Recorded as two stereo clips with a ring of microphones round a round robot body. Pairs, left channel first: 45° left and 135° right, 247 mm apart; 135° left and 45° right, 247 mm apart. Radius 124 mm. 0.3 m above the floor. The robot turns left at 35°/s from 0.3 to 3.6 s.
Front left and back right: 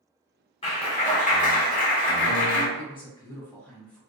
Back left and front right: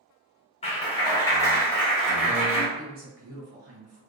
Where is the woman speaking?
10° right, 1.2 m; by 4.0 s 35° right, 1.2 m.